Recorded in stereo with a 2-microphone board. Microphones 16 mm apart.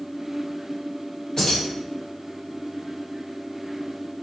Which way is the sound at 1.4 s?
40° left (ahead or behind).